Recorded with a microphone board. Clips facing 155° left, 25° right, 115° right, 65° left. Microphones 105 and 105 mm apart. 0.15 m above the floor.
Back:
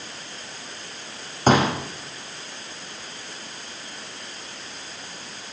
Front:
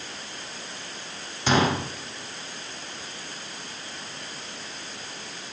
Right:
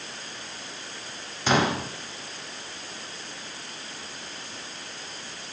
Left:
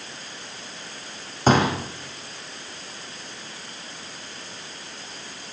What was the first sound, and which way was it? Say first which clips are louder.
A pop: back 4 dB, left 4 dB; 115° left.